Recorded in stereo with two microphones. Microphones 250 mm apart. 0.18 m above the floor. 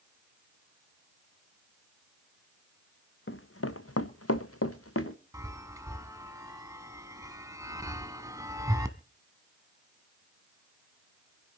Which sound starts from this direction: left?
Running footsteps, at 3.3 s.